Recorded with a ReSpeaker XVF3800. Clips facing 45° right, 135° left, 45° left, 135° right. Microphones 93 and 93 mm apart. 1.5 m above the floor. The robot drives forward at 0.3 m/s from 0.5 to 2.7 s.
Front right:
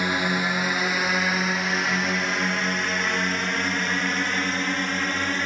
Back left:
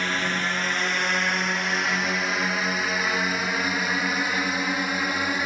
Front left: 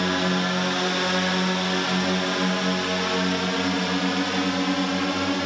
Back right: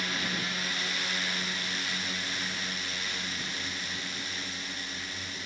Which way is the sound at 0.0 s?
30° left.